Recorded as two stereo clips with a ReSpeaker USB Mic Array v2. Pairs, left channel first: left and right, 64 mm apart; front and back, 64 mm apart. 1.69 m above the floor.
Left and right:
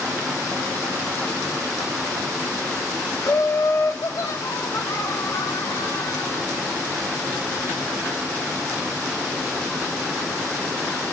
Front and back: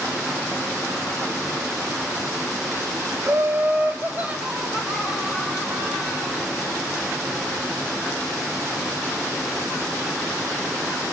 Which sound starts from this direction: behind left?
Laughter, at 3.2 s.